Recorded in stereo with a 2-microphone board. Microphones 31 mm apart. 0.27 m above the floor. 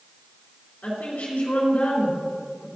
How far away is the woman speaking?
About 3.5 m.